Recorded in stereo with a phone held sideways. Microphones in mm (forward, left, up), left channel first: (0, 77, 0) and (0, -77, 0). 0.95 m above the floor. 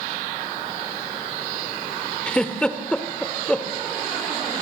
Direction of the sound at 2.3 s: 5° left (ahead or behind).